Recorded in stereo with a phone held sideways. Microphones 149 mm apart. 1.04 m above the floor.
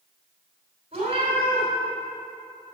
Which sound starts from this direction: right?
A cat meowing, at 0.9 s.